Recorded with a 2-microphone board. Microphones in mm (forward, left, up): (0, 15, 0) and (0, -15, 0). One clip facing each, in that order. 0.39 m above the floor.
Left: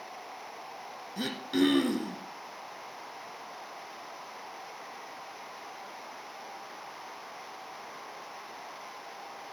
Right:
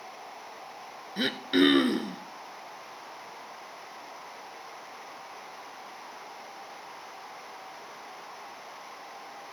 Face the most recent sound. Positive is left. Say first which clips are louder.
# right 4 dB
turn(degrees=-40)  # may be behind; listen again after turning